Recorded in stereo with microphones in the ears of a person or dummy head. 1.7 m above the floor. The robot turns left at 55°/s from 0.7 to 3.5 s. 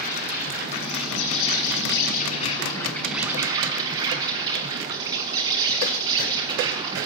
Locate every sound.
0.0 s an insect: 135° left, 6.5 m; by 7.1 s 20° right, 6.5 m